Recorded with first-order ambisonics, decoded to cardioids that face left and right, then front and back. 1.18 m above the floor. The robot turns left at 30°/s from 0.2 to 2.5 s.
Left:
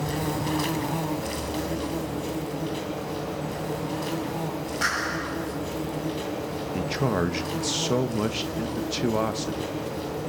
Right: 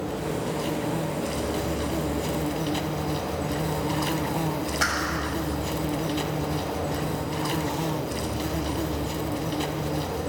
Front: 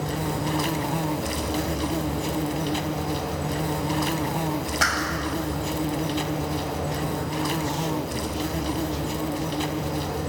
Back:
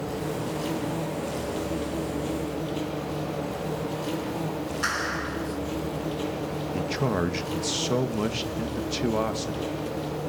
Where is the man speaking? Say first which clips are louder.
Left 3 dB, back 2 dB; 125° left, 1.2 m.